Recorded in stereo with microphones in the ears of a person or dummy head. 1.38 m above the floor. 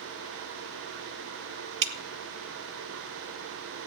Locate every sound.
1.8 s dripping: 65° right (ahead or behind), 1.5 m